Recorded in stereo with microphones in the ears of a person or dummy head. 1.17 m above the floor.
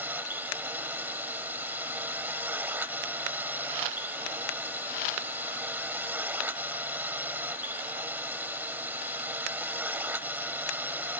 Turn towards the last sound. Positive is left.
turn(degrees=-10)  # may be behind; listen again after turning